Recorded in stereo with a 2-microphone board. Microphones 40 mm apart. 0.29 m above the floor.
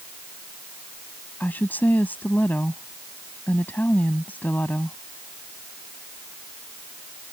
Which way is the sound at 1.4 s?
50° left (ahead or behind).